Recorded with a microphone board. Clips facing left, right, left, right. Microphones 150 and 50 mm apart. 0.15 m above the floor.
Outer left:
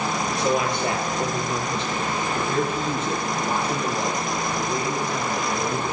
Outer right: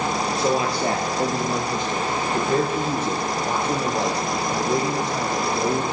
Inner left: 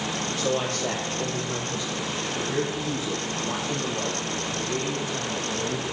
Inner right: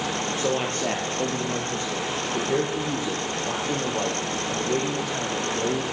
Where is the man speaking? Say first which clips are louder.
Even, even; 30° right (ahead or behind), 3.5 m; by 5.9 s 80° right, 6.5 m.